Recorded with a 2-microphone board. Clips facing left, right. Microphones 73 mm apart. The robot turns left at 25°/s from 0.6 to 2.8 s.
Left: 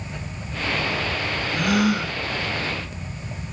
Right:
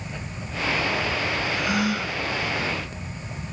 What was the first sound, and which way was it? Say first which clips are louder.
A gasp: left 7 dB; 65° left (ahead or behind).